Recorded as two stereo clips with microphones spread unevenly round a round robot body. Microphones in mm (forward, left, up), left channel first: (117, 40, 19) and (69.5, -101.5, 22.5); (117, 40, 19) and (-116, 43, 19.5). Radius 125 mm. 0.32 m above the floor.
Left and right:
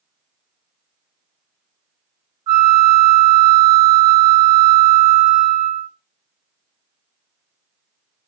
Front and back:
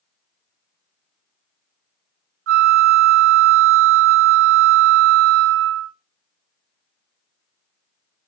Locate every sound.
2.5 s a flute: 170° right, 0.7 m